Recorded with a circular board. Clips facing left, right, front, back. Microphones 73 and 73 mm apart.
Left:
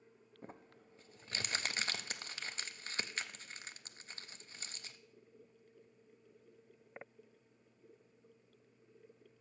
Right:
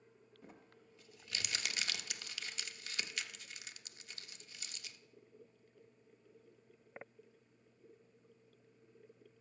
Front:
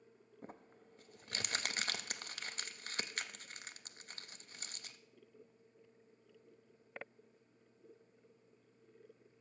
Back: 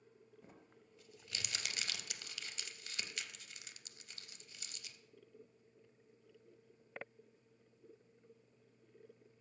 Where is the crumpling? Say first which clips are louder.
Left 6 dB, front 6 dB; 40° left, 0.5 m.